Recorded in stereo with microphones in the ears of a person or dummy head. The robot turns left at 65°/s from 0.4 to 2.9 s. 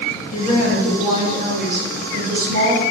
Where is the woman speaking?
35° left, 2 m; by 2.8 s 125° right, 2 m.